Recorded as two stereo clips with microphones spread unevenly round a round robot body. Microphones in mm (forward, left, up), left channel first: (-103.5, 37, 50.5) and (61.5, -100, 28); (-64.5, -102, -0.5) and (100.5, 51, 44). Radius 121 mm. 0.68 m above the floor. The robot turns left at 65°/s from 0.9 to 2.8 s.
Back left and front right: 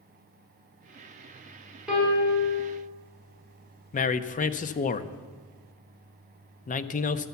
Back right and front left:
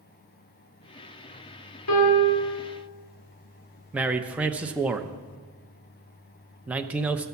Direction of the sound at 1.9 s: 125° right.